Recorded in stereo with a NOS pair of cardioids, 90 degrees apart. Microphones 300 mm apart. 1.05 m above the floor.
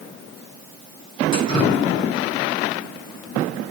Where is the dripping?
15° left, 7.5 m.